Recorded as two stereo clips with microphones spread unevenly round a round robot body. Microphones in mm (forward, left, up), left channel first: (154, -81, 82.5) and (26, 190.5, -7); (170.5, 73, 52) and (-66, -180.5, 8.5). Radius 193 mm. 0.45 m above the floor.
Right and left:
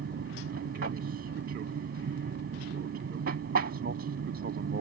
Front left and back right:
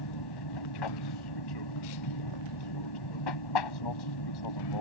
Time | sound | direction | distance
0.0 | an aircraft | 65° left | ?